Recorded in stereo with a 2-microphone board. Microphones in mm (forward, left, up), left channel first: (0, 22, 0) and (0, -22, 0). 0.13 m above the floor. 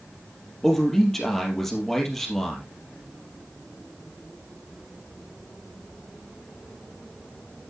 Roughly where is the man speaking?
Centre.